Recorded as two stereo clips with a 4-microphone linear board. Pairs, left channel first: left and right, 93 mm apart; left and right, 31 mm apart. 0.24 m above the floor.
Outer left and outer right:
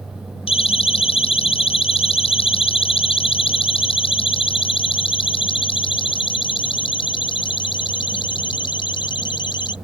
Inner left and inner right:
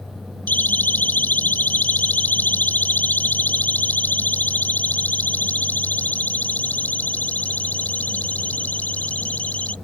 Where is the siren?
80° left; by 9.7 s 55° left (ahead or behind).